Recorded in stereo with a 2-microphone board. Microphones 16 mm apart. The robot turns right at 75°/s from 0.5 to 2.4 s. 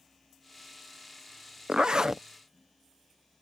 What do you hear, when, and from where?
1.7 s a zipper: 80° right; by 2.2 s 35° right